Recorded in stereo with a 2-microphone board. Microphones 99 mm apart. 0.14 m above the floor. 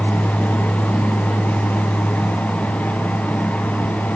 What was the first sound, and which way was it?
Only background noise.